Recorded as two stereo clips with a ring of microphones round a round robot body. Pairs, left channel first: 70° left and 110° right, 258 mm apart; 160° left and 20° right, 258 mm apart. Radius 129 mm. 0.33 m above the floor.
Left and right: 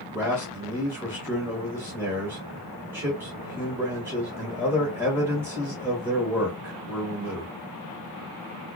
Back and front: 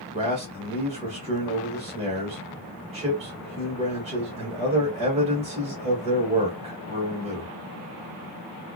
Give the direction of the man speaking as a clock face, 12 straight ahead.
1 o'clock.